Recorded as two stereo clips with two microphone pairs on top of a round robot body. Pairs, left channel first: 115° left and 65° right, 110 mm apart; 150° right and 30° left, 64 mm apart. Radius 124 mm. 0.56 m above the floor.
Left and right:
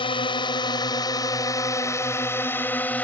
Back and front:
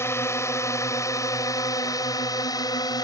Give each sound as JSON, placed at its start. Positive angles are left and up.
{"t": 0.0, "sound": "a drone", "azimuth_deg": 160}